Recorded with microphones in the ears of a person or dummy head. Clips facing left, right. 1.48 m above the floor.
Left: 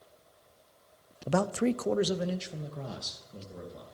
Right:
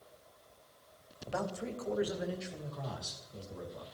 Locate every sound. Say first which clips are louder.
1.3 s a man speaking: left 10 dB; 50° left (ahead or behind), 0.8 m; by 3.9 s 25° left (ahead or behind), 3.5 m